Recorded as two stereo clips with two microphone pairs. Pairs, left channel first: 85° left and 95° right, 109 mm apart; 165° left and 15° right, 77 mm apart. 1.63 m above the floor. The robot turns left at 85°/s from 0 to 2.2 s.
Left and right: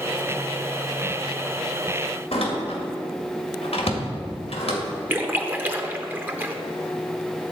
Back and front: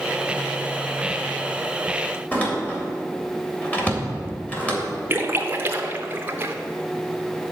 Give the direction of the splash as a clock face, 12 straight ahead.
1 o'clock.